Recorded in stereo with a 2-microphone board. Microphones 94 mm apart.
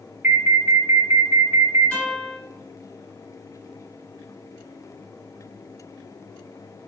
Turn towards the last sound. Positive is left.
turn(degrees=15)  # may be behind; listen again after turning